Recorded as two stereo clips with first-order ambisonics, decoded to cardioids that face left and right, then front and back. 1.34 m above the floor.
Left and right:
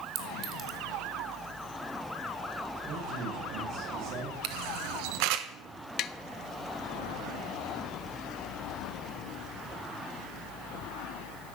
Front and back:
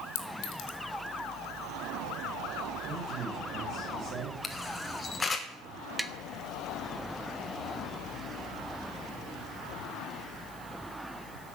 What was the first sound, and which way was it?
A clink, 35° right.